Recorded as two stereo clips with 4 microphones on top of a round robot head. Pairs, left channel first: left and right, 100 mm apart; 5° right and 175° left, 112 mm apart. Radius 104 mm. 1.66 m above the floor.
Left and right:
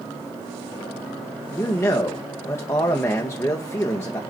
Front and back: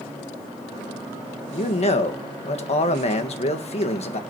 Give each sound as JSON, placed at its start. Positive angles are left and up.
{"t": 1.5, "sound": "a man speaking", "azimuth_deg": 20, "distance_m": 1.5}